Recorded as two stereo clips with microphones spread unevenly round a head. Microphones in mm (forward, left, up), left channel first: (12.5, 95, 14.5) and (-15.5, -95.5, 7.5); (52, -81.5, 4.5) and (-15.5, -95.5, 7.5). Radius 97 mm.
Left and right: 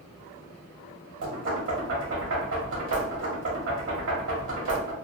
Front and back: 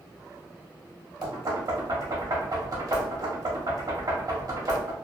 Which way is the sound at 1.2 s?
130° right.